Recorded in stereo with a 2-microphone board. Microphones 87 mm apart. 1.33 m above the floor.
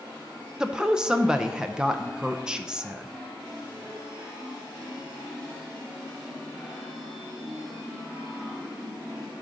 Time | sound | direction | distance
0.6 | a woman speaking | 10° right (ahead or behind) | 0.5 m